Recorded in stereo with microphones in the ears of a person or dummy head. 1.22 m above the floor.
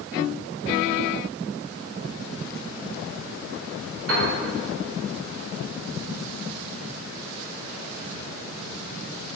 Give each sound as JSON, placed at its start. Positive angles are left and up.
{"t": 4.1, "sound": "a piano", "side_deg": -80, "distance_m": 4.0}